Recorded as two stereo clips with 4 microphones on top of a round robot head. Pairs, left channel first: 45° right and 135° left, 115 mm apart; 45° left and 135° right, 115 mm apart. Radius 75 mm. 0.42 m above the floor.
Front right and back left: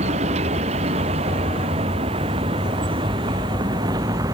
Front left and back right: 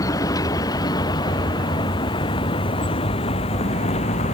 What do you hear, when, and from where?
0.0 s a vehicle: 105° left; by 4.3 s 75° left